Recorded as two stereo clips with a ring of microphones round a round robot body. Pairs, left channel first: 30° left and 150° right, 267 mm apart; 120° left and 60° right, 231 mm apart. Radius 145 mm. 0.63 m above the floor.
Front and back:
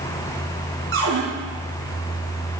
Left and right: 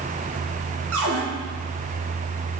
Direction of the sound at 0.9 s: 105° right.